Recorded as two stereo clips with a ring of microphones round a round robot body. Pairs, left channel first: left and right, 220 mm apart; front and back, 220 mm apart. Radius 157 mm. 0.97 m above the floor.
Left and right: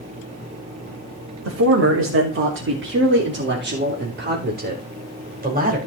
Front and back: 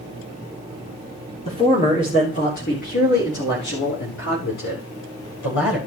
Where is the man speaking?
75° right, 3 m; by 5.8 s 35° right, 4 m.